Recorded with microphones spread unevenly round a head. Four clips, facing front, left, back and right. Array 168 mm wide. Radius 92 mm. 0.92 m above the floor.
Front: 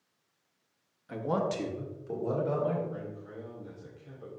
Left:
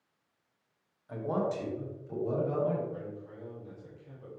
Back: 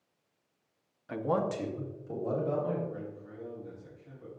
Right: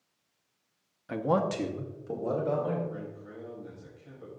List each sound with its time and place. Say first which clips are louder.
1.1 s a man speaking: right 4 dB, even; 90° right, 0.9 m; by 2.8 s 50° right, 3 m
2.9 s a man speaking: even, front 1 dB; 40° right, 4 m